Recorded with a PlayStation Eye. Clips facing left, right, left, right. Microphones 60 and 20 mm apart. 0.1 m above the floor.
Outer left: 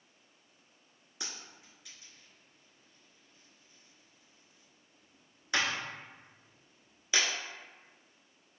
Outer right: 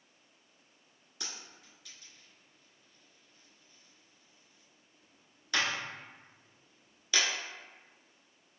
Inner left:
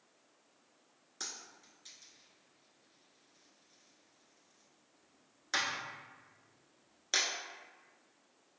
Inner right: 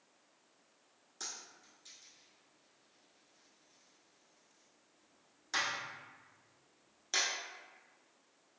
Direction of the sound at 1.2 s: 20° left (ahead or behind).